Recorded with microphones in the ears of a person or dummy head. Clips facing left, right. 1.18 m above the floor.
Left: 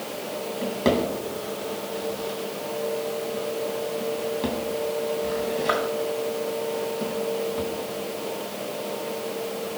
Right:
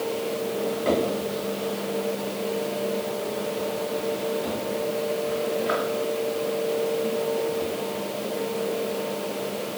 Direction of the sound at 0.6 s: 65° left (ahead or behind).